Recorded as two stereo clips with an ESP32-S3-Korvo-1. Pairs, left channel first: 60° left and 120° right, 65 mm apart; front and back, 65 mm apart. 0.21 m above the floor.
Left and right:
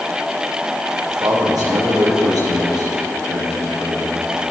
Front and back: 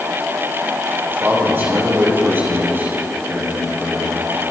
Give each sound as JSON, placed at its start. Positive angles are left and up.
{"t": 1.1, "sound": "a man speaking", "azimuth_deg": -125, "distance_m": 4.5}